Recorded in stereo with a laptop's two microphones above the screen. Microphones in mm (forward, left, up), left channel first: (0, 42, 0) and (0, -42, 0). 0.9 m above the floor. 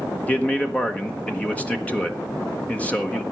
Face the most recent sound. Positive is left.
turn(degrees=15)  # may be behind; listen again after turning